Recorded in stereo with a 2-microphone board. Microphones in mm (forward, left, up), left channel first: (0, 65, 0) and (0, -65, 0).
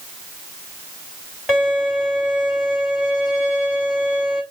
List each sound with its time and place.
1.5 s a violin: 10° right (ahead or behind), 2 m